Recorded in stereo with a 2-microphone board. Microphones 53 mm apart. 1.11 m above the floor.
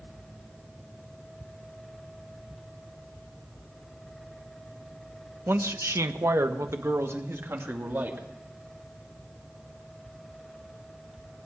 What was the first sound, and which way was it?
A man speaking, 45° right (ahead or behind).